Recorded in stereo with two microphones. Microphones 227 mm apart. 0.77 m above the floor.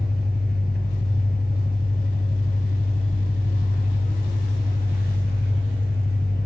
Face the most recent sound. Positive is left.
turn(degrees=40)  # may be behind; listen again after turning